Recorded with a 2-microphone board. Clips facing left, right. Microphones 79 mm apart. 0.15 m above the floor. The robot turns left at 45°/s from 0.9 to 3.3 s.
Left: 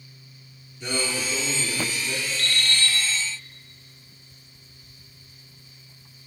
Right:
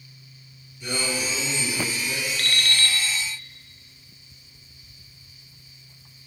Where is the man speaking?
70° left, 3 m; by 2.3 s 5° left, 3 m.